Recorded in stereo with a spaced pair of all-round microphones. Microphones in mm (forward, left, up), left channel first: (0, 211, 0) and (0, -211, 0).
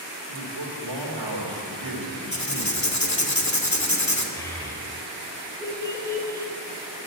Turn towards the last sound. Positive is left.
turn(degrees=5)  # may be behind; listen again after turning